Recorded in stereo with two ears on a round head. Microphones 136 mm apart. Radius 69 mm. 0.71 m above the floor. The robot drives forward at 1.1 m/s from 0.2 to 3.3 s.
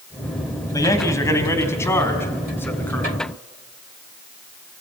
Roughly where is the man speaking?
Left.